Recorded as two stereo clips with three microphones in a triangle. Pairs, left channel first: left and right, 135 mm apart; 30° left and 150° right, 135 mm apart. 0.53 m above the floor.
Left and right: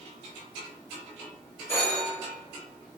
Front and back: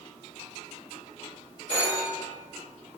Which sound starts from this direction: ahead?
A phone ringing, at 1.7 s.